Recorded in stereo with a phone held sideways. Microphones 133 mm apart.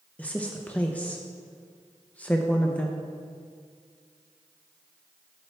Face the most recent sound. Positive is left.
turn(degrees=10)  # may be behind; listen again after turning